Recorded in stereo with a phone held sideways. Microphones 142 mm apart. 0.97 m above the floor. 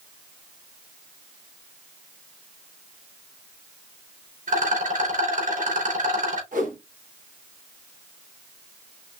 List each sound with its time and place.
4.5 s a rattle: 65° right (ahead or behind), 3 m
6.5 s a whoosh: 75° right (ahead or behind), 3 m